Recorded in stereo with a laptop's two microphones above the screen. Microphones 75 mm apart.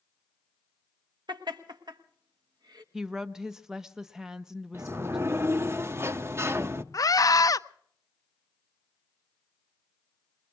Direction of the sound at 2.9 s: 5° right (ahead or behind).